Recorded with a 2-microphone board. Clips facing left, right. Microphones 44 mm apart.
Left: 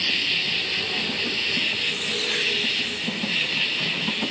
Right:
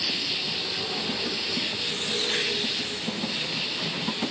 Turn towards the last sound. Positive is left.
turn(degrees=55)  # may be behind; listen again after turning